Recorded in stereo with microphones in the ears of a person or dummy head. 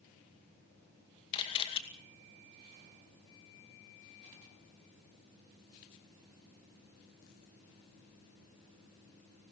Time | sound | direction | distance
1.3 | a camera shutter | 30° left (ahead or behind) | 2 m